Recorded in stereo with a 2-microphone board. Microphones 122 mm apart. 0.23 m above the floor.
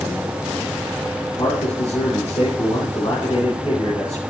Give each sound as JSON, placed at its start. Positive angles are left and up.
{"t": 1.2, "sound": "a man speaking", "side_deg": 55, "distance_m": 2.0}